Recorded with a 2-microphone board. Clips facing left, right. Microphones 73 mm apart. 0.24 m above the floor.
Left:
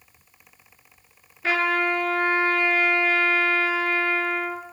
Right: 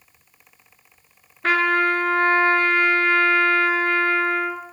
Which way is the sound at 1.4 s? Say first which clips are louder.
Right 4 dB; 50° right (ahead or behind).